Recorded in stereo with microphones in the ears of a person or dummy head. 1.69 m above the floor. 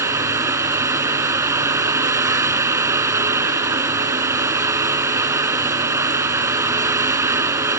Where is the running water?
10° right (ahead or behind).